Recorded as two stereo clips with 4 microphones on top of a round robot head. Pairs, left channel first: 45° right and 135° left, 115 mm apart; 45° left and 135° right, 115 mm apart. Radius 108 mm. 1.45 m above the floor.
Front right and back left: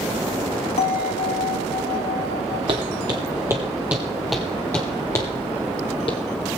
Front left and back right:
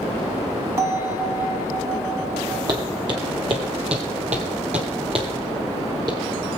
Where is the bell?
70° right, 1.8 m.